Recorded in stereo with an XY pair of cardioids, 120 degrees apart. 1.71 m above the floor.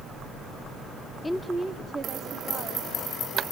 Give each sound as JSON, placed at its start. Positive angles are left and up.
{"t": 1.2, "sound": "a woman speaking", "azimuth_deg": 15, "distance_m": 0.6}